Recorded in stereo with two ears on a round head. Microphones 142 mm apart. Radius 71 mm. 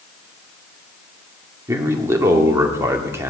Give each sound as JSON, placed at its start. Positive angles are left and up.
{"t": 1.7, "sound": "a man speaking", "side_deg": -20, "distance_m": 1.8}